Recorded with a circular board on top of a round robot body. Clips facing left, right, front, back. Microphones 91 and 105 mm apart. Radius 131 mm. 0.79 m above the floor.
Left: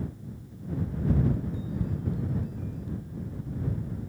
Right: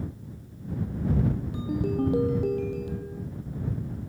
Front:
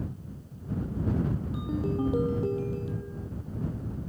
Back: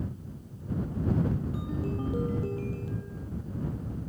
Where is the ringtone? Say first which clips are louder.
Right 7 dB, front 3 dB; 70° right.